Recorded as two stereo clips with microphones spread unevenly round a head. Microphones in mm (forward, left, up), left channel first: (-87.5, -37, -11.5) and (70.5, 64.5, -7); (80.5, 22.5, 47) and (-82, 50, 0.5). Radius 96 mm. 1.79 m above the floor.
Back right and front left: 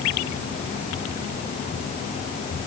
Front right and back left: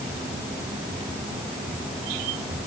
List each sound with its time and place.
Only background noise.